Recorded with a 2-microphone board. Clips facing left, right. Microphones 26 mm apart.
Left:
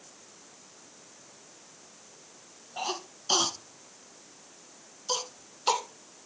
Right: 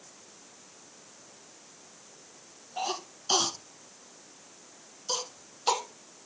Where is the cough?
10° left (ahead or behind), 1.4 m.